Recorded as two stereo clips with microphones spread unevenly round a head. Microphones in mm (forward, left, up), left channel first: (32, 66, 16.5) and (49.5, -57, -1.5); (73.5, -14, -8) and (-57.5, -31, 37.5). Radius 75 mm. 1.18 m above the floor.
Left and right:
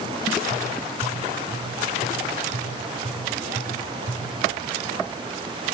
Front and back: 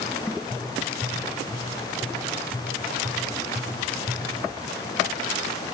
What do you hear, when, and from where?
0.5 s tapping: 120° left, 3 m